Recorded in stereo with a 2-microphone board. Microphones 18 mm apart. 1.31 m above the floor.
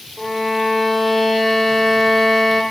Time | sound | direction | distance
0.2 | a violin | 10° left (ahead or behind) | 0.7 m